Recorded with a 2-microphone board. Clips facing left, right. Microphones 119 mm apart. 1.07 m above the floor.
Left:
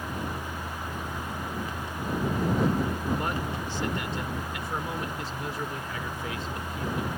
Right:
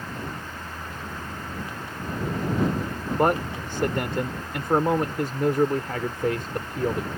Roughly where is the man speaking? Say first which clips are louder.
Right 8 dB; right.